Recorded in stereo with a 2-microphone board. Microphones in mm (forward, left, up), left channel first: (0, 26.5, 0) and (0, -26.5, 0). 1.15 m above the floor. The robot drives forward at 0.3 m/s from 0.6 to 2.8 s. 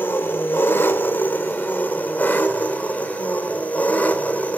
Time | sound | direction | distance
0.0 | an engine running | 45° left (ahead or behind) | 1.3 m